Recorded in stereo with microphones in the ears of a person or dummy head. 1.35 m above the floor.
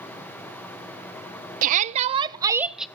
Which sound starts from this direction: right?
A shout, at 1.6 s.